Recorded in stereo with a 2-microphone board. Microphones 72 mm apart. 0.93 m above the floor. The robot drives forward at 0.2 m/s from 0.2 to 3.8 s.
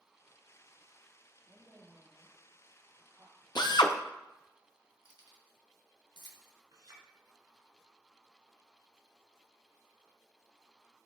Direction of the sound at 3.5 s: 80° left.